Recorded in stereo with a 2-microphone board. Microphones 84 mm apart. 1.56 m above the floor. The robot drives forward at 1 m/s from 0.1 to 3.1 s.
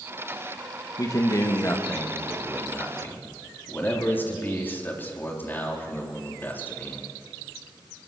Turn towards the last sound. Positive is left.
turn(degrees=20)  # may be behind; listen again after turning